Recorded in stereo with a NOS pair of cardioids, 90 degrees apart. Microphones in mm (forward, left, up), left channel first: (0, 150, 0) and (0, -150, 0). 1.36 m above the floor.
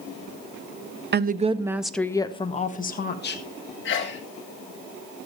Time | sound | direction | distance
1.1 | a woman speaking | 35° right | 0.8 m
3.9 | a sneeze | 40° left | 1.8 m